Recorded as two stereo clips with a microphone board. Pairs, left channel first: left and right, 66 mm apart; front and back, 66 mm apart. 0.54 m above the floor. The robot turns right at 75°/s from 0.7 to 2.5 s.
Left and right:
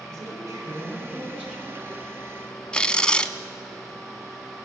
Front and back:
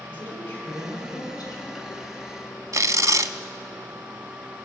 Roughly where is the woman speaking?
Right.